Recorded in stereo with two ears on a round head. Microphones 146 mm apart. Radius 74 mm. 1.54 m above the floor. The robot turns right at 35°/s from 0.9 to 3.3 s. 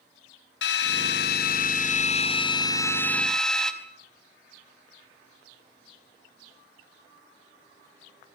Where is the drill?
90° left, 4 m; by 3.7 s 175° left, 4 m.